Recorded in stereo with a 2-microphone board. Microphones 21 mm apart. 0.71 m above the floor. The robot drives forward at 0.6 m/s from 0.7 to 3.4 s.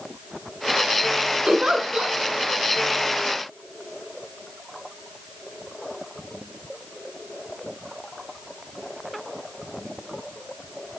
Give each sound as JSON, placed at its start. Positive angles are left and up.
{"t": 1.5, "sound": "a giggle", "side_deg": -45, "distance_m": 1.6}